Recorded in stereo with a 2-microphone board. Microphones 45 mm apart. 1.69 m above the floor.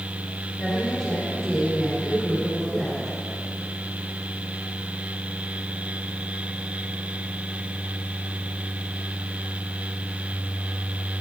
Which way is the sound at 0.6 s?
5° right (ahead or behind).